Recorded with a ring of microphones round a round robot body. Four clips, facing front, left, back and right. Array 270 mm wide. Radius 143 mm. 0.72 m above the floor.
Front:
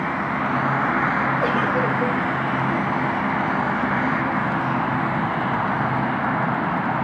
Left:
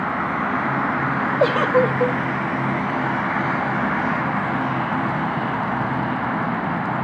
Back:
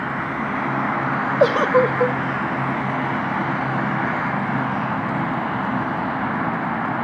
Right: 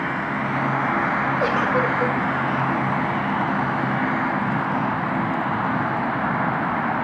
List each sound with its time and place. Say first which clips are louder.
1.4 s a giggle: left 6 dB, back 5 dB; 155° left, 0.6 m